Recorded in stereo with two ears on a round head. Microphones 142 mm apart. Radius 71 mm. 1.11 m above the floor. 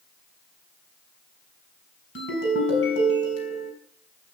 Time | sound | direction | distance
2.1 | a ringtone | 85° left | 5.5 m